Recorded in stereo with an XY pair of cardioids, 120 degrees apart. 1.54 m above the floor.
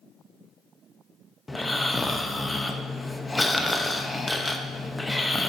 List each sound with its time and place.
1.5 s snoring: 10° left, 0.7 m